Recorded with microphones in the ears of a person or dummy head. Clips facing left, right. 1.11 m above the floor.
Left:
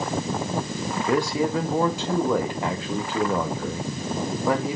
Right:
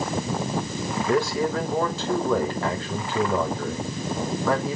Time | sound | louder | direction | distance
1.1 | a man speaking | even | 10° left (ahead or behind) | 1.6 m